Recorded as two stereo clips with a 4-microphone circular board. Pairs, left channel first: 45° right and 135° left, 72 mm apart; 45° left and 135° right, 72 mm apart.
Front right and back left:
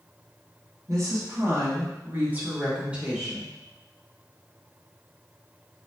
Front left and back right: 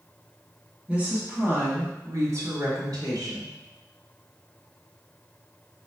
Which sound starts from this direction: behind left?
A woman speaking, at 0.9 s.